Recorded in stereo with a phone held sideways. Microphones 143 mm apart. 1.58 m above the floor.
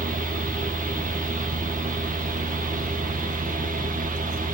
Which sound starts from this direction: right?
A fan, at 0.0 s.